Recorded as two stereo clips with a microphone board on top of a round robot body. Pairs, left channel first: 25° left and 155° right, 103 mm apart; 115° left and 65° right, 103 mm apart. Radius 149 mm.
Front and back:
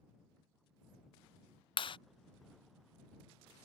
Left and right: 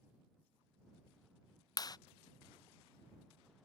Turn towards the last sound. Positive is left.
turn(degrees=60)